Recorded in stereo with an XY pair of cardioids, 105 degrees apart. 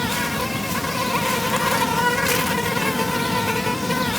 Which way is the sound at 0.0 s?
5° left.